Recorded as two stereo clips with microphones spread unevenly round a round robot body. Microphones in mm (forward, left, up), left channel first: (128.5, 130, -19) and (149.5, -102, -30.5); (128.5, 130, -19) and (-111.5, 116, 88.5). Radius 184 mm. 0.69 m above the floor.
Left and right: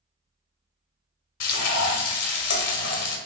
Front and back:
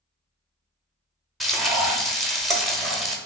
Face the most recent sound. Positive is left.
turn(degrees=100)